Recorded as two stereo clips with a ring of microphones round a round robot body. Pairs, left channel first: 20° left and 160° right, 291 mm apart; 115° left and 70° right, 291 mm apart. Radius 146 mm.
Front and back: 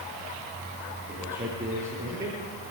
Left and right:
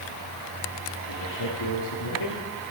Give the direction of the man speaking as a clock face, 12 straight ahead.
7 o'clock.